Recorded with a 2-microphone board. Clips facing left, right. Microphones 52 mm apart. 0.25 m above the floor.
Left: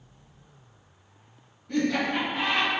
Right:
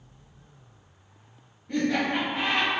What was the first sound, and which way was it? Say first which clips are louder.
Laughter: even; 15° right (ahead or behind).